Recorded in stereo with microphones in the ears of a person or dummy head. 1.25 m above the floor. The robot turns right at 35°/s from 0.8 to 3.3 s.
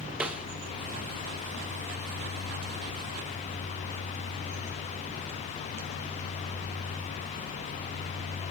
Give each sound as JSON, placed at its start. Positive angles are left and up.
{"t": 0.2, "sound": "a snare drum", "side_deg": -5, "distance_m": 1.1}